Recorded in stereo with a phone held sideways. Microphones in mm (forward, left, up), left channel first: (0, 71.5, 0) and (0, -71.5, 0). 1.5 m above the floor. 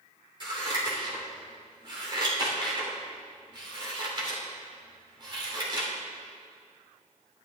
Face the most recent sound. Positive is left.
turn(degrees=-40)  # may be behind; listen again after turning